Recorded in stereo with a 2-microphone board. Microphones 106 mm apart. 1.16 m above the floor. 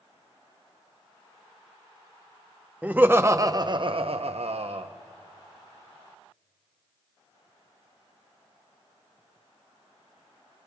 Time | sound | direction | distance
2.8 | laughter | 15° right (ahead or behind) | 0.8 m